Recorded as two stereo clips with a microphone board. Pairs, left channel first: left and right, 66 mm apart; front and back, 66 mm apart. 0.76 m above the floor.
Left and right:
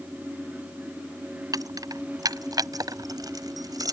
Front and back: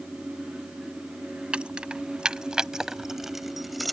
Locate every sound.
1.5 s keys jangling: 105° right; by 3.9 s 90° right